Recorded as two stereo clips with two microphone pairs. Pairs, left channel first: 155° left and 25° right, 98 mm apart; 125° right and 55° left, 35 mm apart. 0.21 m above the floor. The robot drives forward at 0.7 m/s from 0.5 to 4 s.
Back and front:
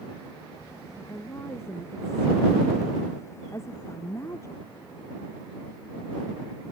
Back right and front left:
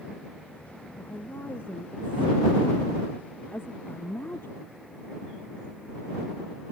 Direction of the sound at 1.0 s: 135° right.